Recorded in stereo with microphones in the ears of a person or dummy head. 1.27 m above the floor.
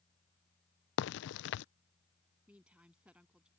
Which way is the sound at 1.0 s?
60° left (ahead or behind).